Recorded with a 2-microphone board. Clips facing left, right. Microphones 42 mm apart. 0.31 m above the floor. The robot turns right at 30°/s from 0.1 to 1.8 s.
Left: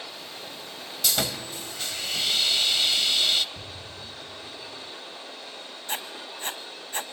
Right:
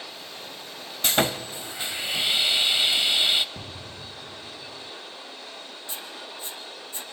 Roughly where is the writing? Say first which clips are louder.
Left 6 dB; left.